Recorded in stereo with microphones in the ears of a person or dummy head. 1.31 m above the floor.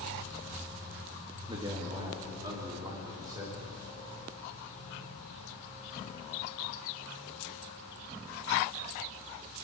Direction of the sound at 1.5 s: 25° right (ahead or behind).